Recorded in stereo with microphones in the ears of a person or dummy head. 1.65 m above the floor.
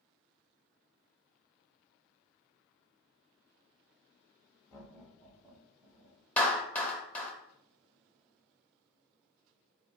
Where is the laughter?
20° left (ahead or behind), 1.0 m; by 6.2 s 15° right (ahead or behind), 2 m.